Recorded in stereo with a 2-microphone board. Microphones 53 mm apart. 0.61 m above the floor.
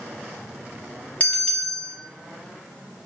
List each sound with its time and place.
1.2 s a bell: 30° left (ahead or behind), 0.8 m